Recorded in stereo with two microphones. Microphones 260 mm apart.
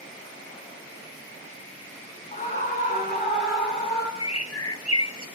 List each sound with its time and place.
2.3 s a scream: 30° left (ahead or behind), 2 m; by 4.1 s 40° left (ahead or behind), 3 m
4.2 s a bird: 80° left, 1.3 m